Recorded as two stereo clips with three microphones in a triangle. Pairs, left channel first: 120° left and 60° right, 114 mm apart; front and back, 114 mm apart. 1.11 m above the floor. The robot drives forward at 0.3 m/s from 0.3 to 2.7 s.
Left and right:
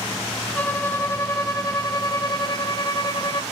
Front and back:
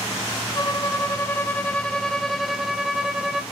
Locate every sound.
0.5 s a violin: 50° left, 1.2 m; by 3.4 s 100° left, 1.0 m